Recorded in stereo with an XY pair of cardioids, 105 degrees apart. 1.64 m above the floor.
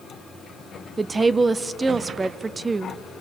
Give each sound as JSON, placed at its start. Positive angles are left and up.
{"t": 1.0, "sound": "a woman speaking", "azimuth_deg": -25, "distance_m": 0.6}